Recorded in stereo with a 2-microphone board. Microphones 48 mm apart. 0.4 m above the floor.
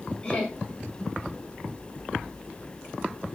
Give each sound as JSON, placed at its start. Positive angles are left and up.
{"t": 0.2, "sound": "laughter", "side_deg": 20, "distance_m": 1.4}